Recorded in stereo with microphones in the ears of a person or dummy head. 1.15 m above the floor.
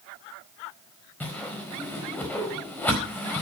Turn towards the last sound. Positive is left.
turn(degrees=10)  # may be behind; listen again after turning